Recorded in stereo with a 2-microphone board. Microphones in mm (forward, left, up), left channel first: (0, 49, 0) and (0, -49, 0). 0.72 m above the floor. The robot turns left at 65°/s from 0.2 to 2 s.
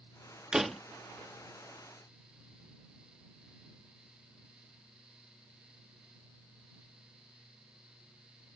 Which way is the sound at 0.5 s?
10° right (ahead or behind).